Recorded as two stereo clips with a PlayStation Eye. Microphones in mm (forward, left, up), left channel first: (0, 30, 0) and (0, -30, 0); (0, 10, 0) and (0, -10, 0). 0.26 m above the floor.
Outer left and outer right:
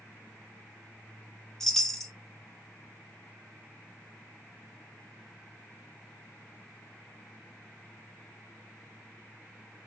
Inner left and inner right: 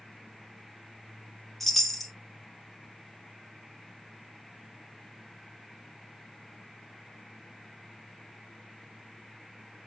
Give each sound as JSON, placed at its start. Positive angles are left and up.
{"t": 1.6, "sound": "a chime", "side_deg": 10, "distance_m": 0.5}